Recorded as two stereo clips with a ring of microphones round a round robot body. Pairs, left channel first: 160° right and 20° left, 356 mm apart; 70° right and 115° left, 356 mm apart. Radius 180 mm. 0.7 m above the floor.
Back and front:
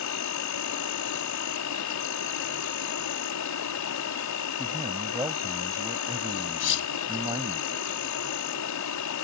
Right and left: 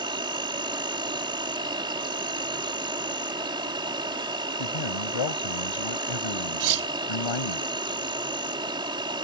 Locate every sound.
0.0 s an insect: 175° right
4.6 s a man speaking: 60° right
6.6 s cutlery clinking: 145° left